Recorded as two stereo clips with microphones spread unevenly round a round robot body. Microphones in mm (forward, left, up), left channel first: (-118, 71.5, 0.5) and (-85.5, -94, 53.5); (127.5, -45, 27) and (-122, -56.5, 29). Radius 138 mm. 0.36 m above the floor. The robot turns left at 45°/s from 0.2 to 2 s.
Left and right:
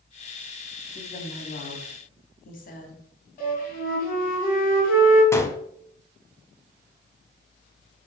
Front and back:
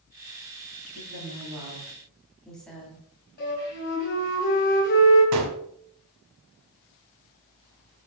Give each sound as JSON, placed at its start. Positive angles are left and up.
{"t": 0.9, "sound": "a woman speaking", "azimuth_deg": 140, "distance_m": 2.5}
{"t": 3.4, "sound": "a flute", "azimuth_deg": 60, "distance_m": 4.5}
{"t": 5.3, "sound": "a gunshot", "azimuth_deg": 170, "distance_m": 1.6}